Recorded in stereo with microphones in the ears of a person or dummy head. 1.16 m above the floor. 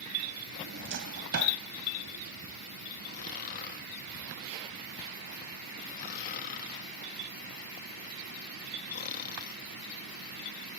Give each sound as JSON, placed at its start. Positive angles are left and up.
{"t": 0.5, "sound": "a drawer", "side_deg": -65}
{"t": 3.1, "sound": "snoring", "side_deg": 50}